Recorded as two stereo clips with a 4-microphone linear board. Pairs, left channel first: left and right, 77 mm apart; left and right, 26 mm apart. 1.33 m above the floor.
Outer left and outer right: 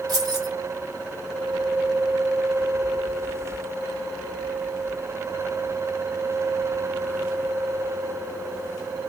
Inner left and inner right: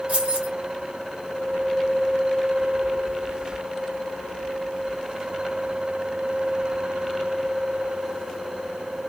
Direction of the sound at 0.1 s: 55° right (ahead or behind).